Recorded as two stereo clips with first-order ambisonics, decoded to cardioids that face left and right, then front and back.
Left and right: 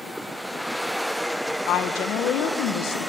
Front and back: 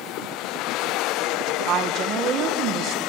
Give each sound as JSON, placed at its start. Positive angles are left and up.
{"t": 1.7, "sound": "a woman speaking", "azimuth_deg": 130, "distance_m": 1.4}